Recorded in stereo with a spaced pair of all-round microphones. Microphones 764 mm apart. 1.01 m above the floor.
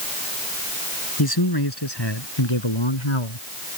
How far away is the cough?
I don't hear a cough.